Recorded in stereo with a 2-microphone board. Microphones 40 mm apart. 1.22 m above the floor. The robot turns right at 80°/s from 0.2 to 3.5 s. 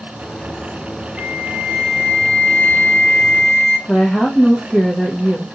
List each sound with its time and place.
1.2 s a flute: 35° right, 1.5 m; by 3.8 s 150° left, 1.5 m
3.9 s a woman speaking: 20° left (ahead or behind), 0.6 m